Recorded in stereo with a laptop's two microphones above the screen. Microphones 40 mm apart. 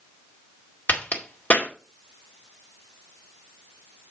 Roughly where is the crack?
Left.